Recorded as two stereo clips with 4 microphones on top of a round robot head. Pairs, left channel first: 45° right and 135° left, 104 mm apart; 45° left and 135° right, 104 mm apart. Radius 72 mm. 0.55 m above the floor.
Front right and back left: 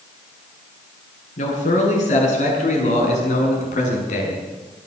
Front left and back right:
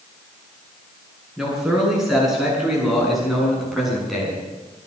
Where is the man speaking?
50° right, 7.5 m; by 4.4 s 45° right, 6 m.